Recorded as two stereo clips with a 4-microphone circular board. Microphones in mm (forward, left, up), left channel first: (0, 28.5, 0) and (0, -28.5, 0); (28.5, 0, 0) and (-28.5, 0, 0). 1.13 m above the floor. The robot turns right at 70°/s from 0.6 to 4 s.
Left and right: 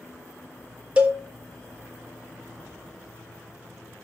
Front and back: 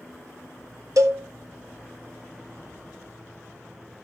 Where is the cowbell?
160° right, 1.1 m; by 1.2 s 140° right, 1.1 m.